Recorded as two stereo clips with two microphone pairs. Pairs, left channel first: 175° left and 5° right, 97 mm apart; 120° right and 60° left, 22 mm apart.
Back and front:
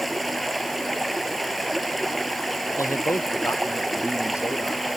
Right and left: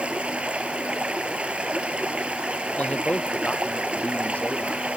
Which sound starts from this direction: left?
Running water, at 0.0 s.